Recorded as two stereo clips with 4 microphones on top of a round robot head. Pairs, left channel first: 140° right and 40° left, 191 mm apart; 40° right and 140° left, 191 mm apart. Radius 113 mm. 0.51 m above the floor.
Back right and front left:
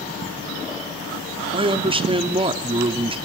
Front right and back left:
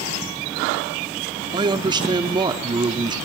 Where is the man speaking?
85° left, 1.4 m.